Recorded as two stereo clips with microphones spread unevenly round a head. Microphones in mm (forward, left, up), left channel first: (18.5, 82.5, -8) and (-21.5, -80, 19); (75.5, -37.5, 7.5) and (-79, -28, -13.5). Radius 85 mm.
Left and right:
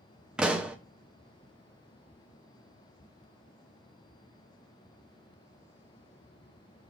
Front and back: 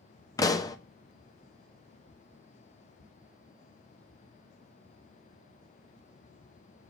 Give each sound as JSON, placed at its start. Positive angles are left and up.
{"t": 0.4, "sound": "a pop", "azimuth_deg": -35, "distance_m": 0.7}